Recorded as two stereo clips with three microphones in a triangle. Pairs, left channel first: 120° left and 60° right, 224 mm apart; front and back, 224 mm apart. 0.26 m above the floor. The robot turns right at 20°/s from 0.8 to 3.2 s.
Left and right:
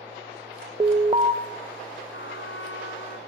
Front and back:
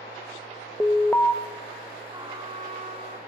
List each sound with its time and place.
0.8 s an alarm: 75° right, 0.7 m; by 1.3 s 65° right, 0.7 m
2.1 s a trumpet: 110° left, 1.0 m; by 3.2 s 135° left, 1.0 m